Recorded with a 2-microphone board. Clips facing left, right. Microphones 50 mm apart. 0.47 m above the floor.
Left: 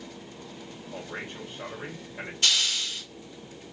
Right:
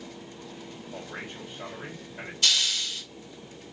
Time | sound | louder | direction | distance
0.9 | a man speaking | left 2 dB | 35° left (ahead or behind) | 2 m
2.4 | a hiss | even | 40° left (ahead or behind) | 1.7 m